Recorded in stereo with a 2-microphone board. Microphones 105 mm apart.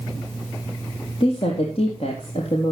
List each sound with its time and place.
1.2 s a woman speaking: 60° left (ahead or behind), 3.5 m; by 2.7 s 70° left (ahead or behind), 4 m